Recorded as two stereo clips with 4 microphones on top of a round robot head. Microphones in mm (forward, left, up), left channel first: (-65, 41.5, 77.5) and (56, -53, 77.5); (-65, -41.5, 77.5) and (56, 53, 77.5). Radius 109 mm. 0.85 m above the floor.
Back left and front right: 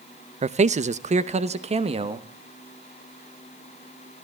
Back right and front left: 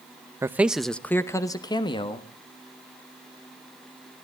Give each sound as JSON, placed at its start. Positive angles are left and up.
{"t": 0.4, "sound": "a man speaking", "azimuth_deg": -25, "distance_m": 0.8}